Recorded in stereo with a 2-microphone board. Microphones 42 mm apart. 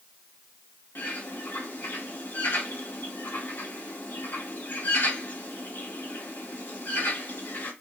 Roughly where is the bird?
Left.